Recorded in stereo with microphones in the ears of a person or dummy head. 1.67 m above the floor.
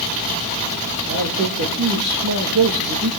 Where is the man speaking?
60° right (ahead or behind), 3.5 m; by 3.1 s 50° right (ahead or behind), 2 m.